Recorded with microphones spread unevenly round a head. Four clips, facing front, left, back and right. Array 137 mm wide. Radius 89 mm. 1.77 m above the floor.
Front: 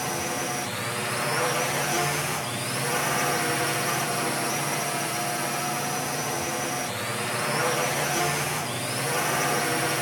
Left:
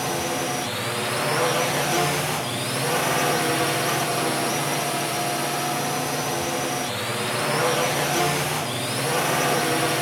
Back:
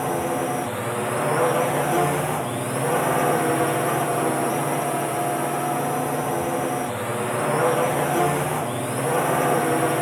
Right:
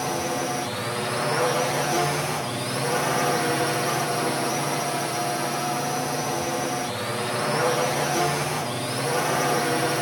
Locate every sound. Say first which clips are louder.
0.0 s a drone: even, back 6 dB; 175° left